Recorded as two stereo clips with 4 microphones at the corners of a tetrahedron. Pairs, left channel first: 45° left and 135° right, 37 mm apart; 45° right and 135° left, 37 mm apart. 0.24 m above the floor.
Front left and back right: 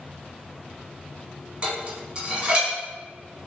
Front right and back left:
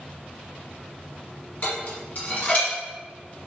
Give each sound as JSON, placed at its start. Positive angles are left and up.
{"t": 1.6, "sound": "dishes clattering", "azimuth_deg": -85, "distance_m": 1.4}